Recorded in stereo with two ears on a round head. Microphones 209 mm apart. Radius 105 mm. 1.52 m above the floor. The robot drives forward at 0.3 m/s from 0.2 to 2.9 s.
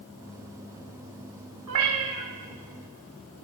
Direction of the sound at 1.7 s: 75° right (ahead or behind).